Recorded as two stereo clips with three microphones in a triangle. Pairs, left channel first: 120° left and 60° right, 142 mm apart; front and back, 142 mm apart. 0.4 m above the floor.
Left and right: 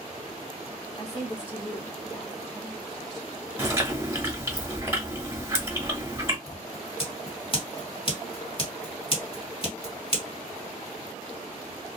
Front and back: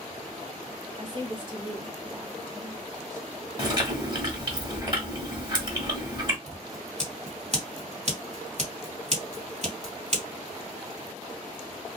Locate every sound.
1.0 s a woman speaking: 140° left, 1.8 m; by 3.3 s 155° right, 1.3 m
3.6 s chewing: 125° right, 1.2 m
6.5 s scissors: 165° left, 2 m